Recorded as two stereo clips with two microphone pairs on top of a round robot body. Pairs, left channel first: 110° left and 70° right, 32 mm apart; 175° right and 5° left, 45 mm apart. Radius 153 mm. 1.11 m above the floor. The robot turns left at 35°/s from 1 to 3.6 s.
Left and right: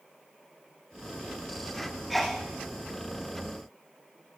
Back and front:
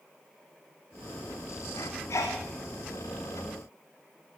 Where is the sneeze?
165° right, 0.8 m; by 2.4 s 175° right, 0.8 m.